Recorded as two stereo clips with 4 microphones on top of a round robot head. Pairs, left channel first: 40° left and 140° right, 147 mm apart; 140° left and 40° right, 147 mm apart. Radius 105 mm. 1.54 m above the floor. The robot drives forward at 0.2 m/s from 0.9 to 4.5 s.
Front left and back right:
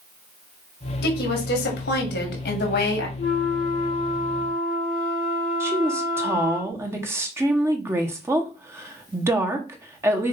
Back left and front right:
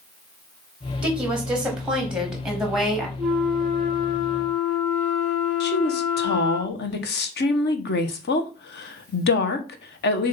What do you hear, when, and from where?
1.0 s a woman speaking: 40° left, 3 m; by 3.1 s 50° left, 2.5 m
3.2 s a flute: 50° left, 1.1 m; by 6.6 s 65° left, 1.0 m
5.6 s a woman speaking: 145° left, 1.1 m